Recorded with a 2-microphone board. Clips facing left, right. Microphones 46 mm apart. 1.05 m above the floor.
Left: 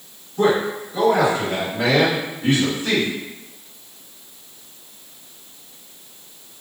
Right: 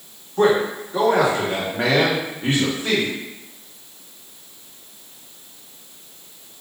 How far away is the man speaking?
About 1.7 m.